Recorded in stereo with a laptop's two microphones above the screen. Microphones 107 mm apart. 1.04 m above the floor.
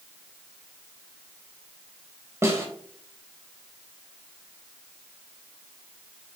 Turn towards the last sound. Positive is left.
turn(degrees=-25)  # may be behind; listen again after turning